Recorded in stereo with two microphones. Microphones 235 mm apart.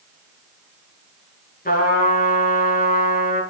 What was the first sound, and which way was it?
A trumpet, 40° left (ahead or behind).